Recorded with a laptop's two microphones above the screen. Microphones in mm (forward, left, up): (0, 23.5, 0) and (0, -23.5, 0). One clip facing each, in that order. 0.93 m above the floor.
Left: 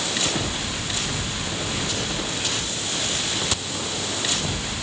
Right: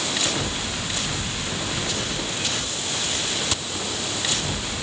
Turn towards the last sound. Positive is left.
No sound to turn to.